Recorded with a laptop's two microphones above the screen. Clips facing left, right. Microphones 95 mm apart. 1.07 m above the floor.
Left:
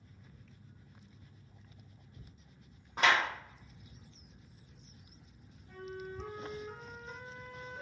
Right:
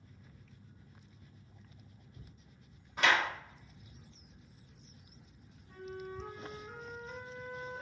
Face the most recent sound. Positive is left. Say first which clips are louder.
# even
turn(degrees=60)  # may be behind; listen again after turning